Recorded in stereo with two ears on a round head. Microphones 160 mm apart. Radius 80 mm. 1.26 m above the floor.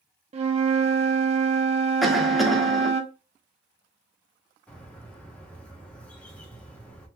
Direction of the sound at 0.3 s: 35° right (ahead or behind).